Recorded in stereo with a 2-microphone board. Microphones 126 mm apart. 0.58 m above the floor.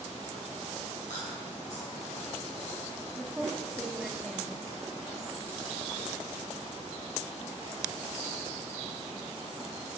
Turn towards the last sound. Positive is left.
turn(degrees=-5)  # may be behind; listen again after turning